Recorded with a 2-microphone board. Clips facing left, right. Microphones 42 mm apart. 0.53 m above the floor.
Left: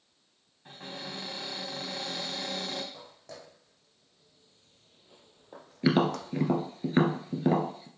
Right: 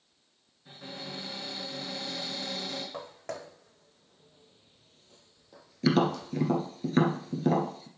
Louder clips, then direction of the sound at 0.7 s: Left 1 dB; 55° left (ahead or behind).